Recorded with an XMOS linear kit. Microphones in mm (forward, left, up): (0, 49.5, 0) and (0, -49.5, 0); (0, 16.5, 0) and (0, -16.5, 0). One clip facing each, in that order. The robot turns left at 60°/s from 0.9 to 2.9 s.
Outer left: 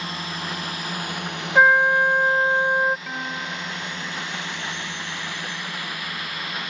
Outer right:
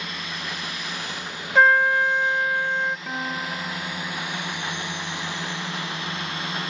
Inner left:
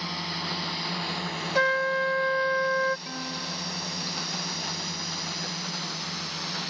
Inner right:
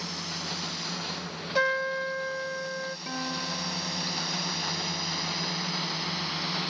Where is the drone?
35° left (ahead or behind); by 6.7 s 30° right (ahead or behind).